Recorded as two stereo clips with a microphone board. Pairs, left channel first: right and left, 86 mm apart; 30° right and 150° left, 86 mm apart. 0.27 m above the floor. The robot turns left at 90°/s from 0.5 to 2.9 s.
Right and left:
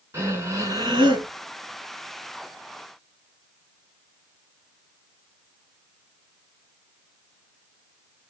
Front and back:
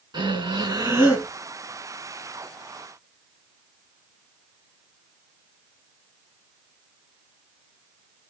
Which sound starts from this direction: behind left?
Breathing, at 0.1 s.